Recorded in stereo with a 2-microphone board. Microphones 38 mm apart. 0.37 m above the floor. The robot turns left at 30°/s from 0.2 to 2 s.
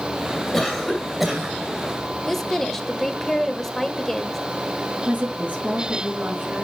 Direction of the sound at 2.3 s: 5° left (ahead or behind).